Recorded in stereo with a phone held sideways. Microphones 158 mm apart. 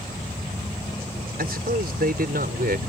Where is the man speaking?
75° right (ahead or behind); by 2.8 s 70° right (ahead or behind).